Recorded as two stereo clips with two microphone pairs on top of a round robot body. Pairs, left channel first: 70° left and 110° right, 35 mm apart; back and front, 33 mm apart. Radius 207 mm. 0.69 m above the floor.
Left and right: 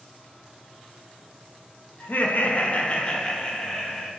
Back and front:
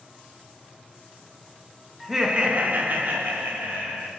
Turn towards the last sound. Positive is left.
turn(degrees=-10)